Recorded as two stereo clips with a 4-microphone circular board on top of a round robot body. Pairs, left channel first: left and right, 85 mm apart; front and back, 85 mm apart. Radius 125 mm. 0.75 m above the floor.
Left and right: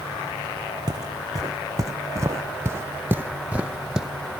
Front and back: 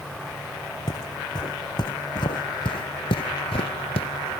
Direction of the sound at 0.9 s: 45° right.